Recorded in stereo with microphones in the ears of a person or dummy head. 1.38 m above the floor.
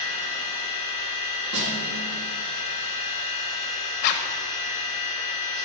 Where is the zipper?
50° left (ahead or behind), 0.8 m.